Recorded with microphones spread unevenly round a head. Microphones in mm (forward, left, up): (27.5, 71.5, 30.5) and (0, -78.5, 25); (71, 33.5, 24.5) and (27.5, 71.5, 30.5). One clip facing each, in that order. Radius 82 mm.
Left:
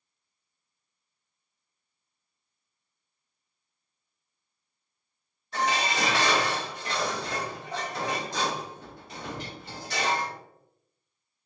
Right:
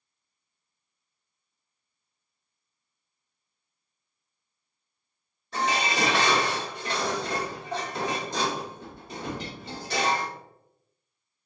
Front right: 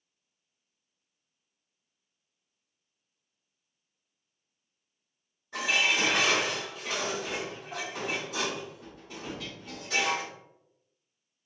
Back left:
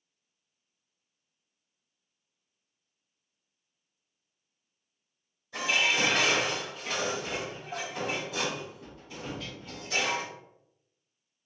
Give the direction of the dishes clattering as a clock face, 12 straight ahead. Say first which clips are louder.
Right 1 dB, even; 4 o'clock.